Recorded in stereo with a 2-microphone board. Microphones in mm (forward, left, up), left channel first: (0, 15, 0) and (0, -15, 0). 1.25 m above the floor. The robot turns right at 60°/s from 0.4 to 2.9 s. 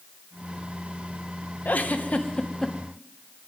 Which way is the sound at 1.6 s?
100° left.